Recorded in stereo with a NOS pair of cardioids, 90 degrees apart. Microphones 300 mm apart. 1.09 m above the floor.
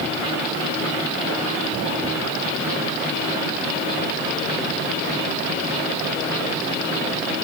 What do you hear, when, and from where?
Only background noise.